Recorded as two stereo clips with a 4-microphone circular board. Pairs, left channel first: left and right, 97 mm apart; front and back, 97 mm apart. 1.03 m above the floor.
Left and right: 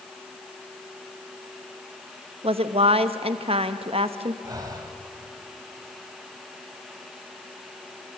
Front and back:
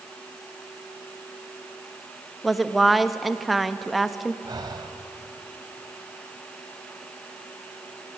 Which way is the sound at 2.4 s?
90° right.